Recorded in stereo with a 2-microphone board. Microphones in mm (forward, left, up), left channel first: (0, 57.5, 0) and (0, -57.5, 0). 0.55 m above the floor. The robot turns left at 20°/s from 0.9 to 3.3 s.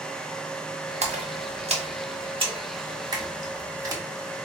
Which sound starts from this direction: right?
A splash, at 1.0 s.